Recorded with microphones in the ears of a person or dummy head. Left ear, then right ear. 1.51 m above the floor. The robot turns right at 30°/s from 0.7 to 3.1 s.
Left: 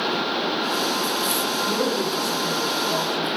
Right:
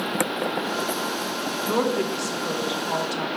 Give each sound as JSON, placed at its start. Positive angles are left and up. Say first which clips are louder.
{"t": 1.7, "sound": "a woman speaking", "louder": "left 1 dB", "azimuth_deg": -155, "distance_m": 1.2}